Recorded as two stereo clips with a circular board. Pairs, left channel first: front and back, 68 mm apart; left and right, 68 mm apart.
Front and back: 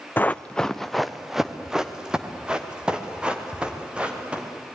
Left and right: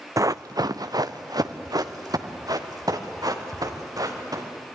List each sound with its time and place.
0.2 s running footsteps: 60° right, 0.6 m; by 4.5 s 110° right, 4.5 m